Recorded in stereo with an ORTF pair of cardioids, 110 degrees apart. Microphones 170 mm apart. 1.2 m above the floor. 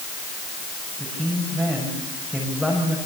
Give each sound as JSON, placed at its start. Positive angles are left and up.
{"t": 1.0, "sound": "a man speaking", "azimuth_deg": 5, "distance_m": 7.5}